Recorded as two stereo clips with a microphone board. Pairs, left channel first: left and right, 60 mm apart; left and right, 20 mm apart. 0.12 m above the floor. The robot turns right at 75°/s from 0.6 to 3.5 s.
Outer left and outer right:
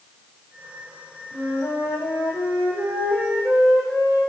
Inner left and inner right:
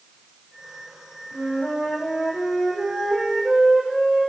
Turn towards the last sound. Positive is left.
turn(degrees=-165)